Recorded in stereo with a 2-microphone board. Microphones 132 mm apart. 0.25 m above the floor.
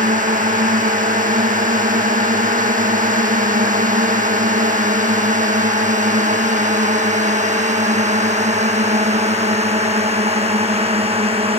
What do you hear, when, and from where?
0.0 s a drone: 80° right; by 11.6 s 45° right (ahead or behind)